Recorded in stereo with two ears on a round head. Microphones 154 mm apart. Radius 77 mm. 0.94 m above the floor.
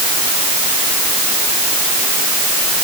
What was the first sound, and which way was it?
Only background noise.